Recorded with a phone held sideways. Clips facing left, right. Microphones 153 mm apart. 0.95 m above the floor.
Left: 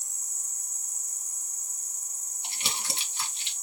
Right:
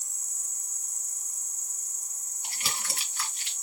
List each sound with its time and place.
0.0 s an insect: 5° left (ahead or behind), 2 m
2.4 s crumpling: 20° left (ahead or behind), 1.7 m